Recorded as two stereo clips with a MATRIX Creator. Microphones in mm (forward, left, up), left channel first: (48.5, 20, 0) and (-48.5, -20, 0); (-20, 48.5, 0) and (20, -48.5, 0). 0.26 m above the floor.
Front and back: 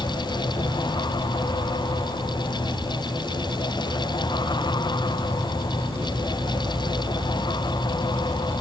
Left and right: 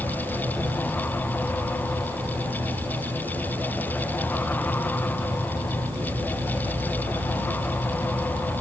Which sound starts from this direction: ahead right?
An insect, at 0.0 s.